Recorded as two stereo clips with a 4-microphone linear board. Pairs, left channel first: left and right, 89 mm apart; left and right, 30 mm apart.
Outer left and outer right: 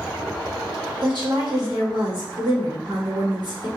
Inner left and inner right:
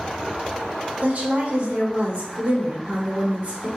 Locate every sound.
1.0 s a woman speaking: 55° right (ahead or behind), 1.3 m